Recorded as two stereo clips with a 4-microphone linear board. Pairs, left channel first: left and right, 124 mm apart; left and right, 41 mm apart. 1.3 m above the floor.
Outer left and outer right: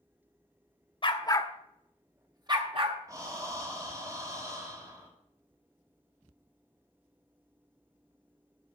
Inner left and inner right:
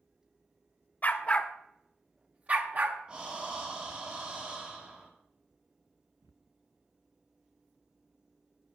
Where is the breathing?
25° right (ahead or behind), 2 m.